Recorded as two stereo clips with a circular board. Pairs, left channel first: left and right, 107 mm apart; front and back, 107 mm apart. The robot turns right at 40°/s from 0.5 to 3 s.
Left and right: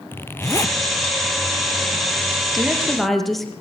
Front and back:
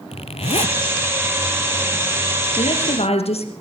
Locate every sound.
0.1 s a zipper: 20° left, 0.6 m; by 0.8 s 30° left, 0.6 m
2.6 s a woman speaking: 15° right, 3.5 m; by 3.5 s straight ahead, 3.5 m